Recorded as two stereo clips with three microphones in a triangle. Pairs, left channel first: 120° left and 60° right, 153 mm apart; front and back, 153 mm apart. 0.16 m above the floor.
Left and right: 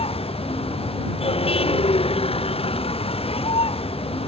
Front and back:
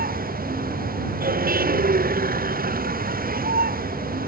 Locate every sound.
0.0 s a vehicle: 170° left